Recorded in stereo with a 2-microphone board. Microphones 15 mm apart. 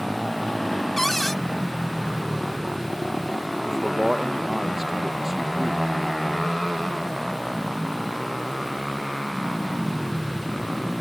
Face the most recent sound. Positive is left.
turn(degrees=-25)  # may be behind; listen again after turning